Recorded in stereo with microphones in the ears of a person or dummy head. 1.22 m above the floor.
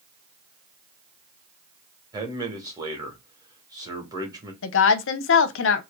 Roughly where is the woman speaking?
Left.